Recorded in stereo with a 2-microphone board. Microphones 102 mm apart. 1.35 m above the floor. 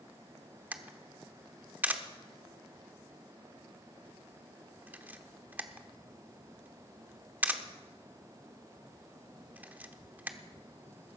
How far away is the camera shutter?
About 1.0 m.